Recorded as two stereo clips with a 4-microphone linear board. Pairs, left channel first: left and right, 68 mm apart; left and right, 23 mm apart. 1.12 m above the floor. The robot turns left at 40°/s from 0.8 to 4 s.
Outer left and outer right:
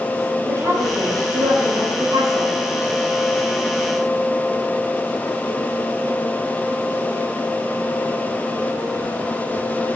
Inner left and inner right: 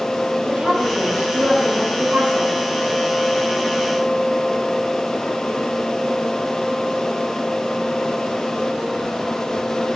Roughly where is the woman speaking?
Ahead right.